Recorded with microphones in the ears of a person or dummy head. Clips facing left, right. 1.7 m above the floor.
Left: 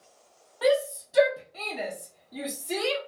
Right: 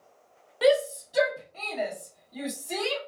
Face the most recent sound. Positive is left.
turn(degrees=40)  # may be behind; listen again after turning